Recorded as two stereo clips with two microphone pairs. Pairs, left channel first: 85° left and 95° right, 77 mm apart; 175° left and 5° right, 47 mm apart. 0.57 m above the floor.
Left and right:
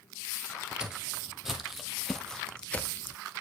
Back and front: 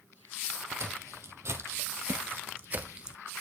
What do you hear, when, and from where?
0.8 s footsteps: 15° right, 1.4 m; by 3.2 s 45° left, 0.6 m